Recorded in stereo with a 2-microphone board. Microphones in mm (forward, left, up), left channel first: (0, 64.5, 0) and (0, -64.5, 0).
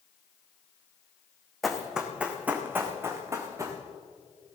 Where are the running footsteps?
Centre (ahead or behind), 1.8 m; by 3.8 s 25° right (ahead or behind), 2.5 m.